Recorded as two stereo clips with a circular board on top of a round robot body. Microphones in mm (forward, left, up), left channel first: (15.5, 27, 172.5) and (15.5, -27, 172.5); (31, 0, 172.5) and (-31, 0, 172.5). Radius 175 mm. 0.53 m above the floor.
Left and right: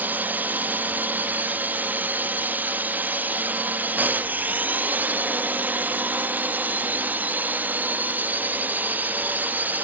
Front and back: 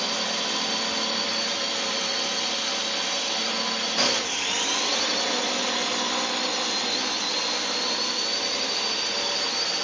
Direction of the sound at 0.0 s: 90° right.